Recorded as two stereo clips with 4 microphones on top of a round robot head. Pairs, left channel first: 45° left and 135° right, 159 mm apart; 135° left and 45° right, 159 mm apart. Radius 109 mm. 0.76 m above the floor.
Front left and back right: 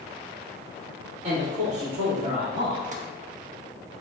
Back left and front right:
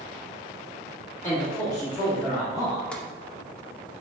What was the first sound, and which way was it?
A man speaking, 155° right.